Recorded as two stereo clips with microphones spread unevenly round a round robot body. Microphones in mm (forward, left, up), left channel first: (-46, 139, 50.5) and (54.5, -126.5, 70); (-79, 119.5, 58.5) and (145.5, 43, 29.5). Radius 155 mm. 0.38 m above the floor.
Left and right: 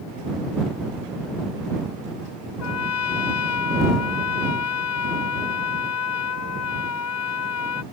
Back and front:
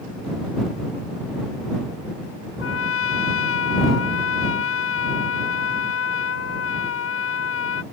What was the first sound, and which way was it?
A trumpet, 140° left.